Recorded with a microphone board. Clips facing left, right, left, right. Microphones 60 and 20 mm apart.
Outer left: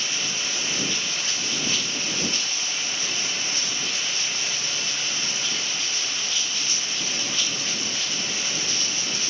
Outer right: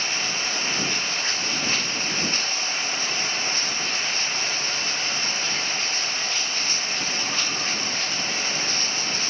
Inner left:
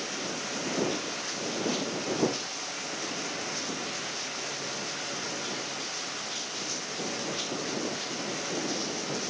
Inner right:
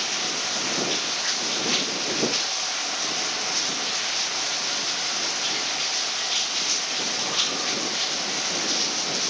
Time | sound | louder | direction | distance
0.0 | running water | outer right 3 dB, inner right 8 dB | 45° right (ahead or behind) | ?